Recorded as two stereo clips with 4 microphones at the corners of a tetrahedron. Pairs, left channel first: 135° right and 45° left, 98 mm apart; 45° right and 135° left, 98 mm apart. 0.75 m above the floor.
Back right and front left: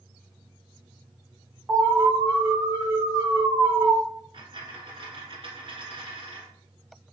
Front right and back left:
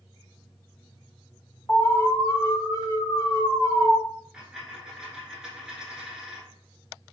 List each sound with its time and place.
1.7 s an alarm: 10° right, 2 m
4.3 s a dropped coin: 55° left, 1.6 m